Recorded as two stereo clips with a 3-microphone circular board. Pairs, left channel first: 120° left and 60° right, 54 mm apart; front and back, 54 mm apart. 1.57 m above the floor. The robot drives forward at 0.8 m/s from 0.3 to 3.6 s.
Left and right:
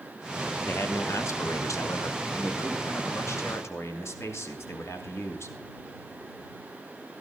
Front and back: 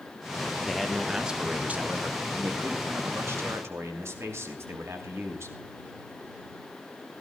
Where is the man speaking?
85° left, 1.3 m; by 5.5 s 150° left, 2.5 m.